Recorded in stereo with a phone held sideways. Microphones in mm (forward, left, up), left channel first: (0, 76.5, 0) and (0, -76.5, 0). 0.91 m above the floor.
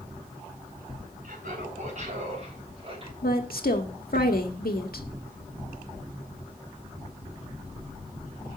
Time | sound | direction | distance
1.2 | laughter | 65° right (ahead or behind) | 4.5 m
3.2 | a woman speaking | 80° left | 1.7 m